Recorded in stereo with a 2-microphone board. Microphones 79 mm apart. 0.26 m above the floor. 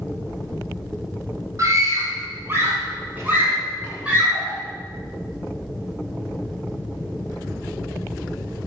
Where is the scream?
45° right (ahead or behind), 1.8 m; by 4.6 s 10° right (ahead or behind), 3.5 m.